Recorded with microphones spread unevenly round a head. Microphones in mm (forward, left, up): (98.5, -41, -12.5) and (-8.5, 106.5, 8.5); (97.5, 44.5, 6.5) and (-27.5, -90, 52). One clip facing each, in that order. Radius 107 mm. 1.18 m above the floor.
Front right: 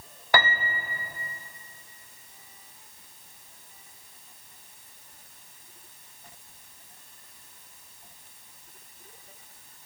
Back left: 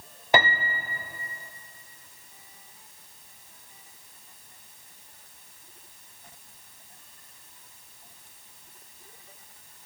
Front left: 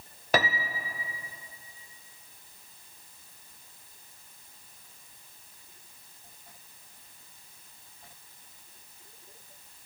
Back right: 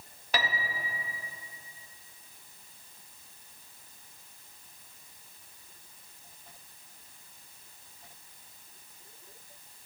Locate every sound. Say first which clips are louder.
0.3 s a piano: back left 3 dB, front left 6 dB; 85° left, 0.5 m